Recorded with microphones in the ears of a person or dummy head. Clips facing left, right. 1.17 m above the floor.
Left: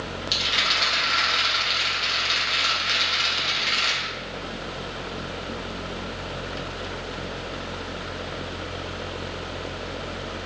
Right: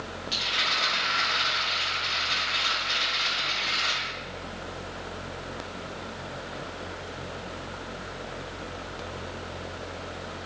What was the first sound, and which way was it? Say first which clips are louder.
A rattle: left 3 dB; 75° left (ahead or behind).